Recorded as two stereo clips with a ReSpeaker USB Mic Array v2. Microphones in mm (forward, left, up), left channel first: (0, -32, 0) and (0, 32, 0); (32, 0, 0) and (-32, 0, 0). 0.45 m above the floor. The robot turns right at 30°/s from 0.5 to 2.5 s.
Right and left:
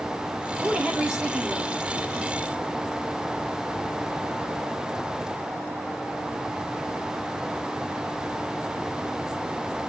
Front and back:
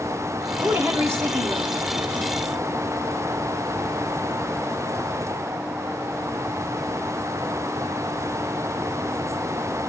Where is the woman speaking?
145° left, 1.6 m; by 1.8 s 175° right, 1.6 m.